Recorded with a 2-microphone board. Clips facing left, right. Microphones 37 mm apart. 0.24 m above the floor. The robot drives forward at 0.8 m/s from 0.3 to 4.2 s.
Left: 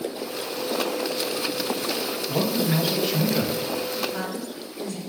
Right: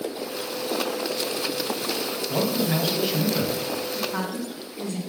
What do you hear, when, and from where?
2.3 s a man speaking: 10° right (ahead or behind), 1.1 m; by 3.7 s 5° right (ahead or behind), 1.8 m
4.0 s a woman speaking: 55° right (ahead or behind), 2 m